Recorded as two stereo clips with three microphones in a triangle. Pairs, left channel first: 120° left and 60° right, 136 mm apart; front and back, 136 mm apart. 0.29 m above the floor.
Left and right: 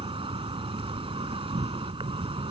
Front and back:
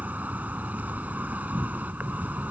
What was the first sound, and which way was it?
An insect, 105° right.